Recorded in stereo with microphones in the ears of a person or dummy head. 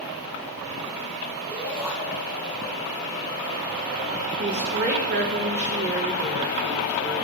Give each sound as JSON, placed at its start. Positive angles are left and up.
{"t": 1.5, "sound": "a shout", "side_deg": -15, "distance_m": 8.0}
{"t": 4.4, "sound": "a woman speaking", "side_deg": -65, "distance_m": 3.0}